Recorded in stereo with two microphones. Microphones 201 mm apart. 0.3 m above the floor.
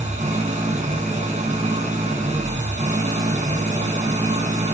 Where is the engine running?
35° right (ahead or behind), 2.0 m.